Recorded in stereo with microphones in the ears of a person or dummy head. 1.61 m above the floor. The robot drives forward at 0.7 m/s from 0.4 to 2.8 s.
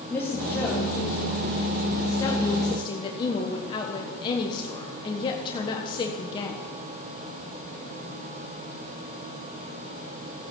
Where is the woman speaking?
10° left (ahead or behind), 3 m; by 6.6 s 20° left (ahead or behind), 1.4 m.